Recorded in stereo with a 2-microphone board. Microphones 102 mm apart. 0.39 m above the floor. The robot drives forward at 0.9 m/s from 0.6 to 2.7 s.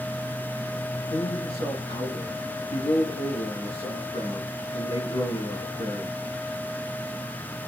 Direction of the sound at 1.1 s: 75° left (ahead or behind).